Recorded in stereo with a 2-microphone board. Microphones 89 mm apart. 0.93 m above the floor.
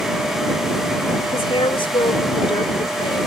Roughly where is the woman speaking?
Left.